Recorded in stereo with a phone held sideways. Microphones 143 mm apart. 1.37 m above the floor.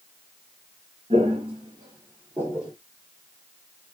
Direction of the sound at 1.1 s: 45° right (ahead or behind).